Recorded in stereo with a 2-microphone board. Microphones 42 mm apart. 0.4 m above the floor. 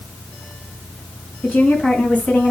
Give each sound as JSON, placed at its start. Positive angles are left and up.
{"t": 1.4, "sound": "a woman speaking", "side_deg": 35, "distance_m": 4.0}